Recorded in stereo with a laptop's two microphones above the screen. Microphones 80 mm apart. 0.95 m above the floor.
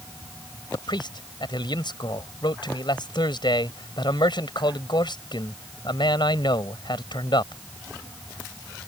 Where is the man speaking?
70° left (ahead or behind).